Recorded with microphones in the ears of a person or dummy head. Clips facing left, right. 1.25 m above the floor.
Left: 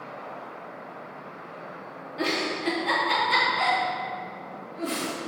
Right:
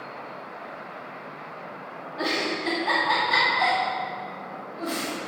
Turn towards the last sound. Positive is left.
turn(degrees=35)  # may be behind; listen again after turning